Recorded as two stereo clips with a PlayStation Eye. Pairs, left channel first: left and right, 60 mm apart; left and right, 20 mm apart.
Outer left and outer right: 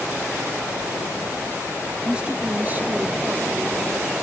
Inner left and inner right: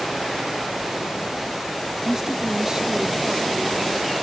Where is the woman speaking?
15° right (ahead or behind); by 4.1 s 55° right (ahead or behind).